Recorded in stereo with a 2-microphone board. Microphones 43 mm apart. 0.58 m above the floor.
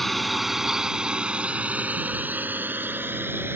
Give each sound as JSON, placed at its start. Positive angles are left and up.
{"t": 0.0, "sound": "a drone", "side_deg": 0}